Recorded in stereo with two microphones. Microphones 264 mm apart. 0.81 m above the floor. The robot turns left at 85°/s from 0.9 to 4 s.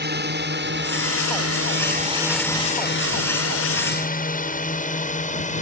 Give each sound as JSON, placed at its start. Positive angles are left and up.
{"t": 0.0, "sound": "a drone", "side_deg": -40}